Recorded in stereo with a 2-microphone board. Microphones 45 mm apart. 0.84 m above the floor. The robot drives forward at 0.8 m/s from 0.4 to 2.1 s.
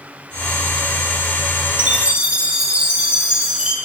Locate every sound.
1.8 s a chime: 30° right (ahead or behind), 1.2 m; by 3.8 s 25° right (ahead or behind), 1.3 m